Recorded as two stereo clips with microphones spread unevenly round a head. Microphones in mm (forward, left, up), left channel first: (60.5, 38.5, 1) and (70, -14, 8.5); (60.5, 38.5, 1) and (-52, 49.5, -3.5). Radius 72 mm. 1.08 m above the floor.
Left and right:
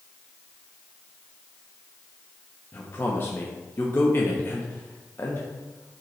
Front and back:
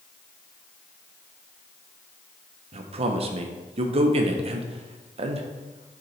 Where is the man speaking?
155° left, 0.5 m.